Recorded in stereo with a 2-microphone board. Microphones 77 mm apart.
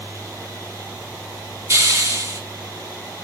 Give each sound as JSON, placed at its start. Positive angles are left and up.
{"t": 1.7, "sound": "a hiss", "side_deg": -35, "distance_m": 1.7}